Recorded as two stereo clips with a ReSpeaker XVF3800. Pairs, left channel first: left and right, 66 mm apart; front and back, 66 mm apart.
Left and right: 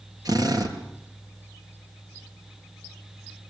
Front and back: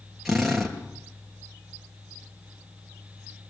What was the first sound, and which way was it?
A drill, 90° right.